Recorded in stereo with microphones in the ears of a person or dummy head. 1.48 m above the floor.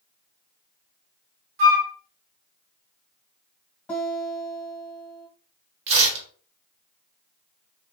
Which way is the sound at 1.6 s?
50° right (ahead or behind).